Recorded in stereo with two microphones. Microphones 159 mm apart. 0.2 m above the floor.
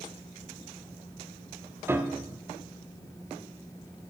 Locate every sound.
1.9 s a piano: 15° right (ahead or behind), 0.6 m